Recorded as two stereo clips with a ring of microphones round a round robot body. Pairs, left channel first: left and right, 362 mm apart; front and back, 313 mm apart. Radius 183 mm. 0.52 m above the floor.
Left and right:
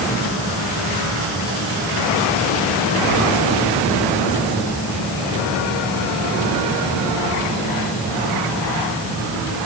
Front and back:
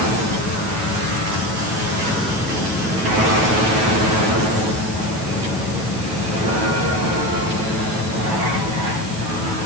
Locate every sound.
Only background noise.